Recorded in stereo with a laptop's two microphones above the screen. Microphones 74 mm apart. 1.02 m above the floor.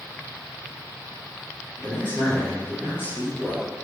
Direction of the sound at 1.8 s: 25° left (ahead or behind).